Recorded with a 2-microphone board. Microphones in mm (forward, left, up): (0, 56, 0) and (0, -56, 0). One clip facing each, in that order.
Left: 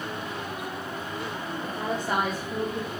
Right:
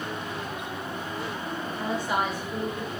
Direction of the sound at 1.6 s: 50° left (ahead or behind).